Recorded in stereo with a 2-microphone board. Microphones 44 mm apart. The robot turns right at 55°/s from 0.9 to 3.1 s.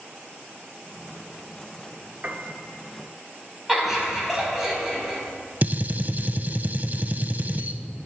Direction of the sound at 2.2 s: 45° right (ahead or behind).